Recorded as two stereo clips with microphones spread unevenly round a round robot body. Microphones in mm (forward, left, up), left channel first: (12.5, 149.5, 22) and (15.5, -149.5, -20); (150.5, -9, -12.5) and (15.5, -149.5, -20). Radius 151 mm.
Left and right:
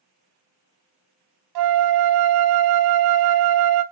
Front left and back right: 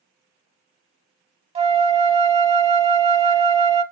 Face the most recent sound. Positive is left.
turn(degrees=-70)